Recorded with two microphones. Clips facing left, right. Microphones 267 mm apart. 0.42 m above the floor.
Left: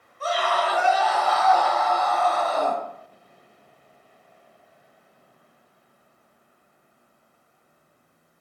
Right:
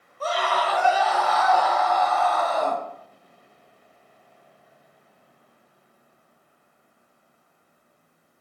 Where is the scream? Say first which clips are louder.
Left 1 dB; 45° right (ahead or behind), 1.4 m; by 2.8 s 40° left (ahead or behind), 1.0 m.